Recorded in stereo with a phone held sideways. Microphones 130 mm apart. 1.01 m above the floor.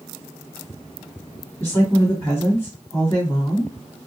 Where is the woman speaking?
15° left (ahead or behind), 1.9 m.